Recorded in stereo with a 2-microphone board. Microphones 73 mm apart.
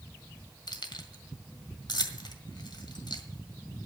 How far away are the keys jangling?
About 1.7 m.